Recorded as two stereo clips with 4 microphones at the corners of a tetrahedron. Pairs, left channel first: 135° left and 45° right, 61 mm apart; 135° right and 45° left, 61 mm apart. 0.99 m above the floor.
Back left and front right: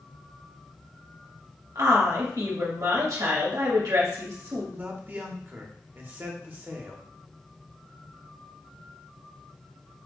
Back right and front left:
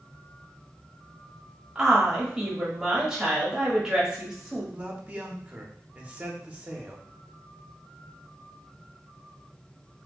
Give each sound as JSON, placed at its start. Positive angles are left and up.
{"t": 1.8, "sound": "a woman speaking", "azimuth_deg": -35, "distance_m": 1.6}
{"t": 4.7, "sound": "a man speaking", "azimuth_deg": -10, "distance_m": 0.9}